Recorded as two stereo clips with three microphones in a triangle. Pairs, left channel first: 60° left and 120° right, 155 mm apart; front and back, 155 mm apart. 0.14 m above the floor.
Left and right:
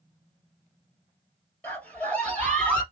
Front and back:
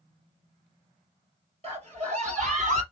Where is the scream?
140° left, 2.5 m; by 2.8 s 145° left, 3 m.